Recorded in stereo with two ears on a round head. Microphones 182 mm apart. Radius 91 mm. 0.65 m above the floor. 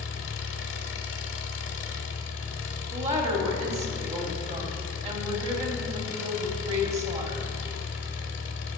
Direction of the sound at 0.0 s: 60° left (ahead or behind).